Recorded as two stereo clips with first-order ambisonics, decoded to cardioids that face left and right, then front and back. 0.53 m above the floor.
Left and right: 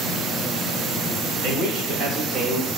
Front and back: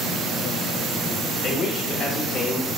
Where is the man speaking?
70° right, 2.5 m; by 2.7 s 60° right, 1.1 m.